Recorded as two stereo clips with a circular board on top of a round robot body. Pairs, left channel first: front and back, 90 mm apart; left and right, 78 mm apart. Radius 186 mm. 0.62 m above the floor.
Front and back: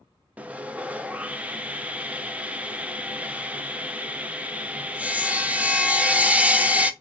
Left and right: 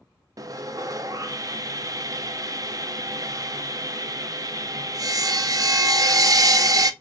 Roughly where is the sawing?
Right.